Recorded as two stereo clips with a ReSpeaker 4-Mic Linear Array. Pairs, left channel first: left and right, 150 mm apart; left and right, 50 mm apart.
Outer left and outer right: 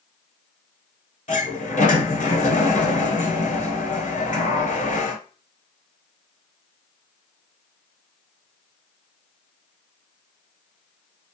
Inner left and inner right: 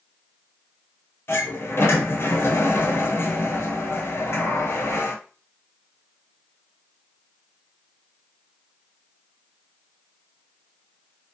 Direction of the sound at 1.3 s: 60° left (ahead or behind).